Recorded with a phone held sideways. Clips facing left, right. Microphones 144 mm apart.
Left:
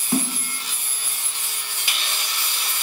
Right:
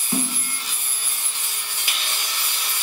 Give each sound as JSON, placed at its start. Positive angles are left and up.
{"t": 0.1, "sound": "a snare drum", "side_deg": 50, "distance_m": 5.5}